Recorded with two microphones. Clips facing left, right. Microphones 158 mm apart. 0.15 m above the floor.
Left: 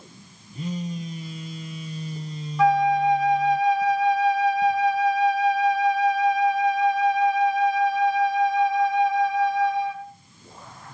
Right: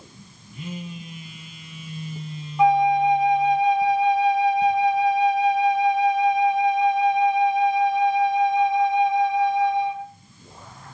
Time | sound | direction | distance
0.5 | a phone buzzing | 45° left (ahead or behind) | 1.0 m
2.6 | a flute | 25° right (ahead or behind) | 0.6 m